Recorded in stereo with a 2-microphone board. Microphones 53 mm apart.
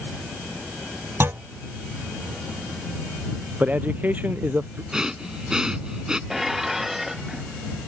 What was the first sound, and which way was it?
A clunk, 50° right (ahead or behind).